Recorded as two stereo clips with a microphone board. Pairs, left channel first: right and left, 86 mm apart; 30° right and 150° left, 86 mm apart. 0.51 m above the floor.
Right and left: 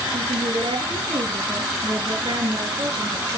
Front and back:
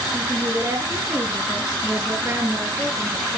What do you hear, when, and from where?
0.1 s a woman speaking: 85° left, 7.5 m